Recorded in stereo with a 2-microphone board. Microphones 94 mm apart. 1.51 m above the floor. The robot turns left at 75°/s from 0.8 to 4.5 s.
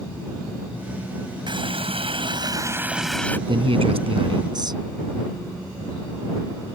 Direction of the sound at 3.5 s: 55° right.